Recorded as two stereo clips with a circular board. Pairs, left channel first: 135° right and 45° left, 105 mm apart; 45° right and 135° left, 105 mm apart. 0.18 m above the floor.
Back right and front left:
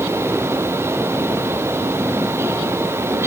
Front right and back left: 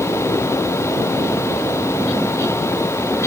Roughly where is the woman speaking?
I don't hear a woman speaking.